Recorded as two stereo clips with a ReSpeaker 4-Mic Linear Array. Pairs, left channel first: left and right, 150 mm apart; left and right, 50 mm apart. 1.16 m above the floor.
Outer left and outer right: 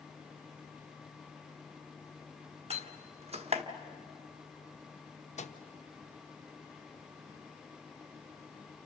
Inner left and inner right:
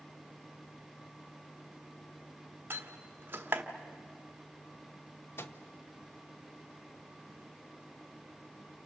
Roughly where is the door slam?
Right.